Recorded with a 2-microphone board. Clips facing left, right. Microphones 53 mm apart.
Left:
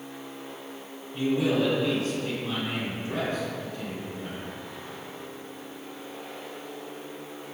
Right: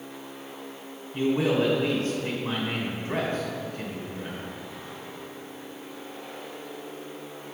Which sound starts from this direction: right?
A man speaking, at 1.1 s.